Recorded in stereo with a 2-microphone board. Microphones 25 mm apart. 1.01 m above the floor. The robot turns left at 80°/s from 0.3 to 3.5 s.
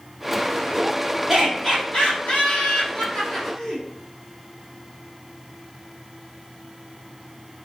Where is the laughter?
Centre (ahead or behind), 2 m; by 3.8 s 5° left (ahead or behind), 2 m.